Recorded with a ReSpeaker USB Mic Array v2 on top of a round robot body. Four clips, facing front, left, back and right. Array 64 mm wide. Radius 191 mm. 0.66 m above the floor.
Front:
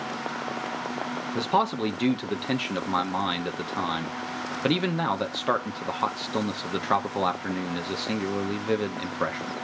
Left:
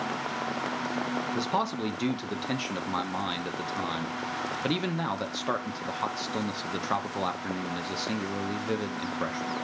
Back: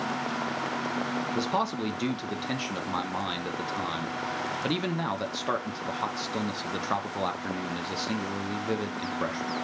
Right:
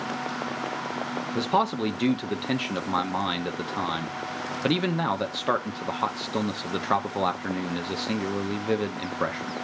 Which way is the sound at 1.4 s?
45° right.